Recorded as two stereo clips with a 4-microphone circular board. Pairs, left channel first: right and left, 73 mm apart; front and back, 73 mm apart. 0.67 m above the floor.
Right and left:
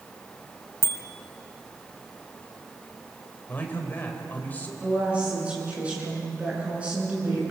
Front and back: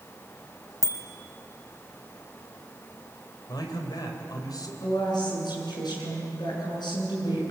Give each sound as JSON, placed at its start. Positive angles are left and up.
{"t": 0.8, "sound": "a bicycle bell", "azimuth_deg": -145, "distance_m": 3.0}
{"t": 3.5, "sound": "a man speaking", "azimuth_deg": -25, "distance_m": 3.5}
{"t": 4.8, "sound": "a woman speaking", "azimuth_deg": 15, "distance_m": 8.0}